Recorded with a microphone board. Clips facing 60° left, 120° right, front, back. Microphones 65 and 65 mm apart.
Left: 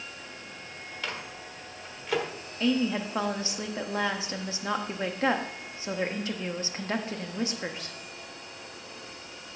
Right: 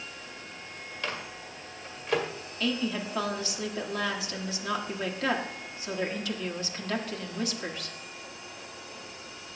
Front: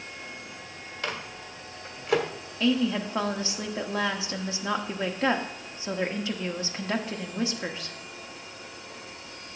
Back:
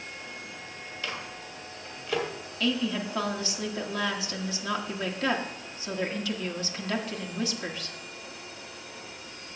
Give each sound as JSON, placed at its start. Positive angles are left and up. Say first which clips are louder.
{"t": 1.0, "sound": "a microwave", "louder": "right 1 dB, front 3 dB", "azimuth_deg": -30, "distance_m": 1.6}
{"t": 2.6, "sound": "a woman speaking", "louder": "left 4 dB, front 4 dB", "azimuth_deg": 35, "distance_m": 1.1}